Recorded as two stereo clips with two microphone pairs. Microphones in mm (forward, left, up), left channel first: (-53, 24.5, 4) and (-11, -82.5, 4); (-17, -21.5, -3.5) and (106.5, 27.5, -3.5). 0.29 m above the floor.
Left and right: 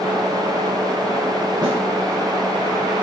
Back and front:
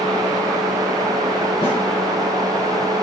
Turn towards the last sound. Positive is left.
turn(degrees=-115)